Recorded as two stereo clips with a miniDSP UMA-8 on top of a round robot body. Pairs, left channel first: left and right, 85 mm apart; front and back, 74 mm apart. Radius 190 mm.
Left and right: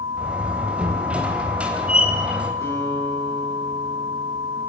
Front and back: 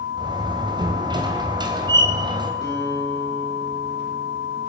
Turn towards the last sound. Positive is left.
turn(degrees=35)